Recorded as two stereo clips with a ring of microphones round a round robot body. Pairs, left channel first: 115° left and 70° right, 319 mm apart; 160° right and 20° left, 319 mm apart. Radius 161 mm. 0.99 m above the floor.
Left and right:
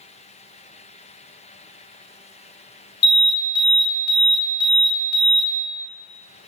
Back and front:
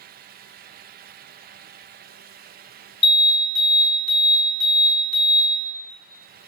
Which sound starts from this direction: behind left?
An alarm, at 3.0 s.